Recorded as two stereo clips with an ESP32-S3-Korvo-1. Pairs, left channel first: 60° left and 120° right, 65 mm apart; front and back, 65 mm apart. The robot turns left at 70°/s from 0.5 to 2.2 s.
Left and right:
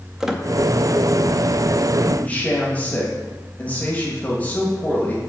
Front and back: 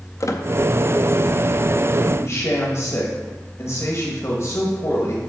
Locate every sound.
0.2 s a squeak: 35° right, 0.5 m
2.0 s a man speaking: 15° left, 1.2 m; by 5.3 s 5° left, 1.2 m